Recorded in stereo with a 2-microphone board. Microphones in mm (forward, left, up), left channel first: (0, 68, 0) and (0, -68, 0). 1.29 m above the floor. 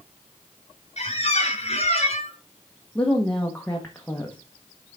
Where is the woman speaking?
10° left (ahead or behind), 1.0 m.